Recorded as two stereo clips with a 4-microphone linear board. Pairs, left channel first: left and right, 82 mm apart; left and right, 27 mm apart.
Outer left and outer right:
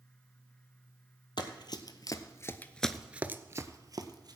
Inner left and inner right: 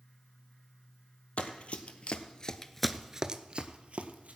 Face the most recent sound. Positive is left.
turn(degrees=-55)  # may be behind; listen again after turning